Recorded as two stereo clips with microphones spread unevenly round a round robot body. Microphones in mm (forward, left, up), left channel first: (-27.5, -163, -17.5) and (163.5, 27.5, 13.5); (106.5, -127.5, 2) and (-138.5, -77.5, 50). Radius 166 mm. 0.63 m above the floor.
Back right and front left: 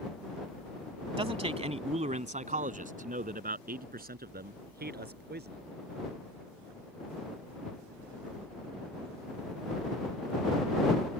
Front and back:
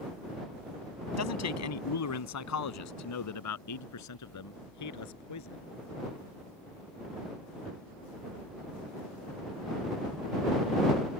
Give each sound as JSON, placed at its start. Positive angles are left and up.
{"t": 1.2, "sound": "a man speaking", "azimuth_deg": -25}